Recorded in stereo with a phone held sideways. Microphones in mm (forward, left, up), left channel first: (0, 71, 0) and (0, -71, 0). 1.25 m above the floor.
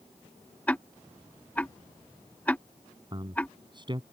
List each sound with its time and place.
0.7 s ticking: 10° left (ahead or behind)
3.1 s a man speaking: 35° right (ahead or behind)